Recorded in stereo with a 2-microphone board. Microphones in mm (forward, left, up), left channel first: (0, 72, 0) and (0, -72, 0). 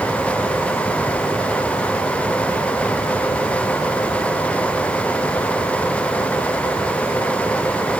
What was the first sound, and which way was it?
Only background noise.